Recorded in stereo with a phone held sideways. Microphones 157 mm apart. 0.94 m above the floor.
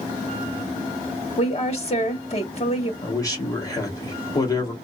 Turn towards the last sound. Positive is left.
turn(degrees=25)  # may be behind; listen again after turning